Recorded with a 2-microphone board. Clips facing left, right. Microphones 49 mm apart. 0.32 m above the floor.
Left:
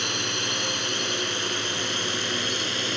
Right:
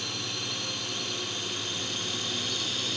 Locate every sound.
0.0 s a drone: 70° left (ahead or behind); by 3.0 s 55° left (ahead or behind)